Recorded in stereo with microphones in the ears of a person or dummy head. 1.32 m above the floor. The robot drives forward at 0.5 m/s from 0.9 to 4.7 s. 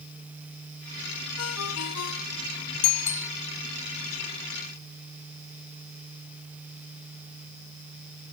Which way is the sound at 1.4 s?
85° left.